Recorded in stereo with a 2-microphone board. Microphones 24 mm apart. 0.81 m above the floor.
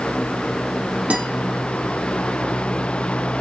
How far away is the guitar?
About 5 m.